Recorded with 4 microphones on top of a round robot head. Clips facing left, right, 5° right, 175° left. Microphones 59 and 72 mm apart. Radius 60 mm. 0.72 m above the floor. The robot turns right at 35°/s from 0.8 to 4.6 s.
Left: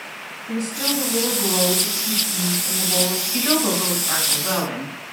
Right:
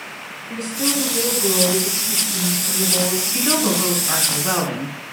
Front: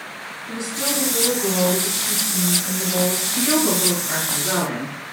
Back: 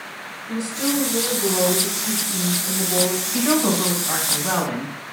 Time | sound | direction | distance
0.5 | a woman speaking | 65° left | 4.5 m
3.3 | a woman speaking | 155° left | 4 m